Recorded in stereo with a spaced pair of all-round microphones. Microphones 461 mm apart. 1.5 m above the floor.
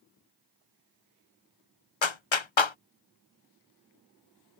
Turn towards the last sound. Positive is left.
turn(degrees=75)  # may be behind; listen again after turning